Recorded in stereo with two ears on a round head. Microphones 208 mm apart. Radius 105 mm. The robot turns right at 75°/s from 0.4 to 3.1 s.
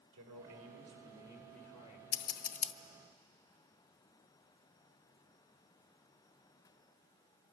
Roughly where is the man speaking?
Right.